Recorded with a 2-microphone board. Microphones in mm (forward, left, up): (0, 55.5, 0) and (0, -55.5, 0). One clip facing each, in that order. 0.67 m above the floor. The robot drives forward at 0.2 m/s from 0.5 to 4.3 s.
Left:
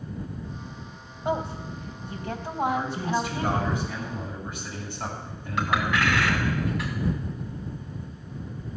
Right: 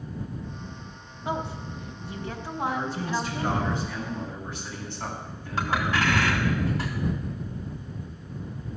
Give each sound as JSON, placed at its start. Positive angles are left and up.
{"t": 1.2, "sound": "a woman speaking", "side_deg": 30, "distance_m": 3.0}
{"t": 2.6, "sound": "a man speaking", "side_deg": 10, "distance_m": 6.5}
{"t": 5.6, "sound": "a clink", "side_deg": -30, "distance_m": 3.0}